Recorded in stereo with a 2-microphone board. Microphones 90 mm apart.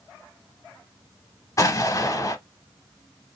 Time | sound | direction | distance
1.6 | an explosion | 35° left (ahead or behind) | 0.6 m